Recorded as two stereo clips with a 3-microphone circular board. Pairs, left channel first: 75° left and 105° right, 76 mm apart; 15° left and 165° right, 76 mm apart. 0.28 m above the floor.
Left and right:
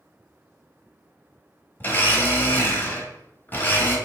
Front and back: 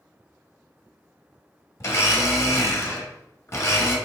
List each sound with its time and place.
1.8 s a blender: 30° left, 1.0 m